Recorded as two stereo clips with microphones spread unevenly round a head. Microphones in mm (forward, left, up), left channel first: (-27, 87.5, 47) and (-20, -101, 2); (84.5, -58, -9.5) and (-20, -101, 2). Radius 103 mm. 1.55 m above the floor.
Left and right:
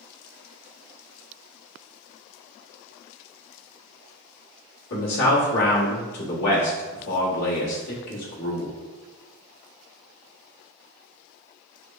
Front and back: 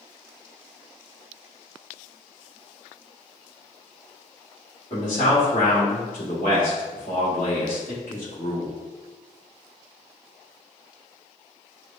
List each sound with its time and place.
4.9 s a man speaking: 80° left, 1.5 m